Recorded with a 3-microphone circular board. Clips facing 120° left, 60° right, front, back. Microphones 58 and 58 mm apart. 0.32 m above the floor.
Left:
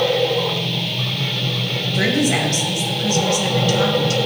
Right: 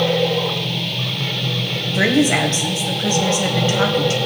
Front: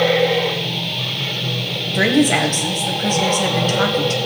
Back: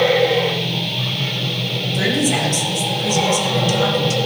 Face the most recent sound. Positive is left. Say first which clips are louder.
# right 3 dB, front 4 dB
turn(degrees=-5)